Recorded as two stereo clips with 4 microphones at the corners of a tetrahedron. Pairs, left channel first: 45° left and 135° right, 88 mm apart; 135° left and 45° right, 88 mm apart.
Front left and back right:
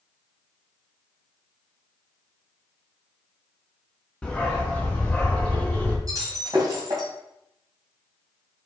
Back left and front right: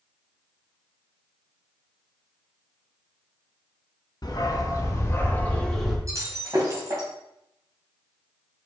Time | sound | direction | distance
4.2 | a dog barking | 125° left | 1.4 m
6.1 | breaking glass | 95° right | 2.5 m